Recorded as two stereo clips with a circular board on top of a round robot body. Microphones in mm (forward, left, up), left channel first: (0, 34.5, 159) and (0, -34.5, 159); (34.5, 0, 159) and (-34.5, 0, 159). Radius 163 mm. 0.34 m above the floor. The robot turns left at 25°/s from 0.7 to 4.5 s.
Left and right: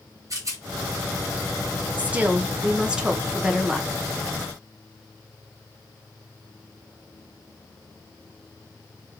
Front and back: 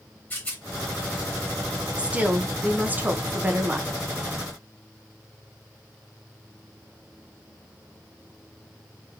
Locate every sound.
0.3 s a rattle: 65° right, 1.7 m
2.0 s a woman speaking: 125° right, 0.9 m; by 3.9 s 175° right, 0.9 m